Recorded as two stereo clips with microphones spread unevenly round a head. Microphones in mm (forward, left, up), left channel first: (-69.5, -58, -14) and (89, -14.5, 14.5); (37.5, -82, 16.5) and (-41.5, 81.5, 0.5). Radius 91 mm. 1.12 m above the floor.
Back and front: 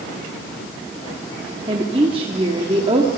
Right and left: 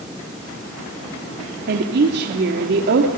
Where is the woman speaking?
80° left, 2 m.